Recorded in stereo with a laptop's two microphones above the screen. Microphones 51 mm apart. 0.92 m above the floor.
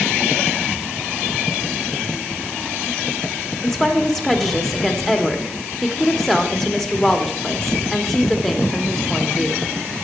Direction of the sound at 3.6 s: 5° left (ahead or behind).